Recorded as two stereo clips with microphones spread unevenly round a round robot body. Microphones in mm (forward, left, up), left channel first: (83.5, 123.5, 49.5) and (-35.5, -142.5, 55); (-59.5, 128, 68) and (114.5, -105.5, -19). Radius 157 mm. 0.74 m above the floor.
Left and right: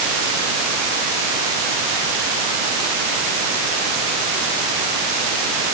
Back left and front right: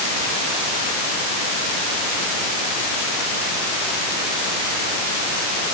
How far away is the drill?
I don't hear a drill.